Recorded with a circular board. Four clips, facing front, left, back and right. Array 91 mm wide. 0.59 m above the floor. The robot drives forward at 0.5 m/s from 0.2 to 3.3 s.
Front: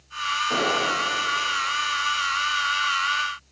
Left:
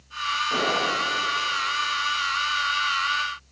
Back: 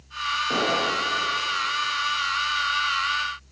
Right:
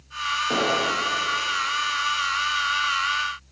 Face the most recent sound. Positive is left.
turn(degrees=-115)